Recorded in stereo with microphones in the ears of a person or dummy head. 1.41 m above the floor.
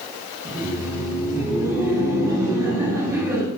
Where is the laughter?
10° right (ahead or behind), 0.7 m.